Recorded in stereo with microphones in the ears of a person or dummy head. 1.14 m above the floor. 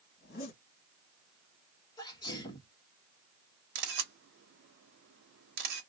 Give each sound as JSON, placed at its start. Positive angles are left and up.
{"t": 0.2, "sound": "a zipper", "side_deg": 50, "distance_m": 1.5}
{"t": 2.0, "sound": "a sneeze", "side_deg": 20, "distance_m": 1.4}
{"t": 3.8, "sound": "a camera shutter", "side_deg": -65, "distance_m": 1.1}